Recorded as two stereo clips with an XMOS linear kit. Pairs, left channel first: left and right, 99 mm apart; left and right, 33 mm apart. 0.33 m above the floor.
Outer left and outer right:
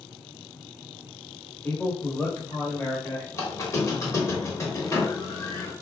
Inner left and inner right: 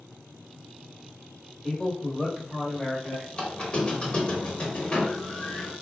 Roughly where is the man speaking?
Centre.